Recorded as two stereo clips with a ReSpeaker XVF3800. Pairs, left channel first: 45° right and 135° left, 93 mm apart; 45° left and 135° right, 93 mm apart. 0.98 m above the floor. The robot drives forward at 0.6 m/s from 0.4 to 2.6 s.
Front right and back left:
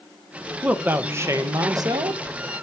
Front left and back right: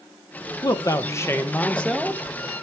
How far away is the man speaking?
About 1.0 m.